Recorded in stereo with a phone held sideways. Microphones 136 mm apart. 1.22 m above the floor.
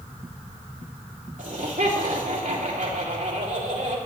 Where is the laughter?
75° right (ahead or behind), 3 m.